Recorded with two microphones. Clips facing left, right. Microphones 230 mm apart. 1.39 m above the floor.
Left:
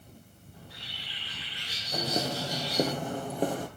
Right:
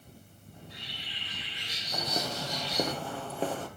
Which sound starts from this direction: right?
A bird, at 0.5 s.